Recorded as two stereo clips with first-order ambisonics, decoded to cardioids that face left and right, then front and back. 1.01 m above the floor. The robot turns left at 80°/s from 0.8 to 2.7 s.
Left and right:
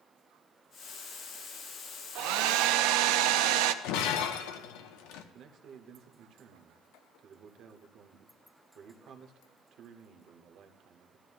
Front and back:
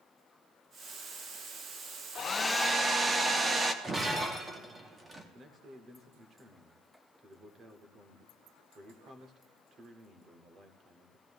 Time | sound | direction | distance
2.1 | a hair dryer | 60° right | 0.6 m
3.8 | breaking glass | 105° left | 0.8 m
5.3 | a man speaking | 120° right | 1.0 m